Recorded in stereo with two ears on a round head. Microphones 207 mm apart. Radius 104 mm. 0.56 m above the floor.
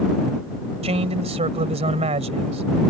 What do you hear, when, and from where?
0.8 s a man speaking: 30° right (ahead or behind)